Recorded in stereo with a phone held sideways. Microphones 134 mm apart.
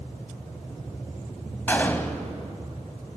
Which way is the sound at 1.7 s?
15° left (ahead or behind).